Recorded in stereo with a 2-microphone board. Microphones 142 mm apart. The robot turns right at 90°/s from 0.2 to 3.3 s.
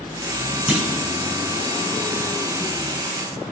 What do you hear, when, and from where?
0.7 s a clunk: 10° right (ahead or behind), 2.0 m; by 1.1 s 30° right (ahead or behind), 2.0 m